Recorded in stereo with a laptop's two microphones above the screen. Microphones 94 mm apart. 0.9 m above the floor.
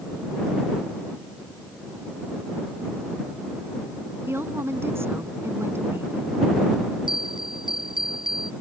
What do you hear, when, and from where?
4.3 s a woman speaking: 25° right (ahead or behind)
7.1 s a bell: 60° right (ahead or behind)